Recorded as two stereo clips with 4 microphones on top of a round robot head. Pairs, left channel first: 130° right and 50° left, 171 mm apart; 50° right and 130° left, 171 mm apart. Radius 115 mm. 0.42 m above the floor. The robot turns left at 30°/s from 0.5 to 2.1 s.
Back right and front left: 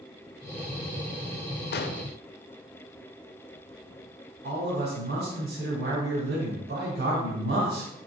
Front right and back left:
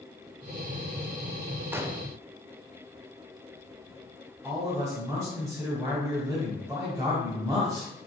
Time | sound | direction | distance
1.7 | an explosion | 150° right | 0.6 m
4.4 | a man speaking | 60° left | 2 m